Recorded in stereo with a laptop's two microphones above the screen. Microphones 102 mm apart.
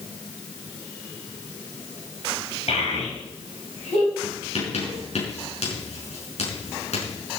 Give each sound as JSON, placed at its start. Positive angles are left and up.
{"t": 2.7, "sound": "a child speaking", "side_deg": 75, "distance_m": 4.5}
{"t": 4.2, "sound": "writing", "side_deg": 80, "distance_m": 5.5}